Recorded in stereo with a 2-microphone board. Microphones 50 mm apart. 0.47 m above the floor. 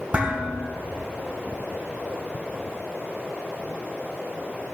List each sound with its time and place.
0.1 s dishes clattering: 30° right (ahead or behind), 1.9 m